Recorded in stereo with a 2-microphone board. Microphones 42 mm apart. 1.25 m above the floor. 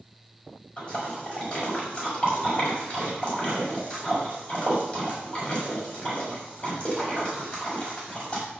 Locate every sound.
0.8 s a splash: 25° left (ahead or behind), 5.5 m